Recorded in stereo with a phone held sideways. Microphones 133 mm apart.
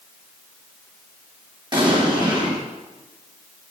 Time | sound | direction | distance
1.7 | an explosion | 35° right (ahead or behind) | 3 m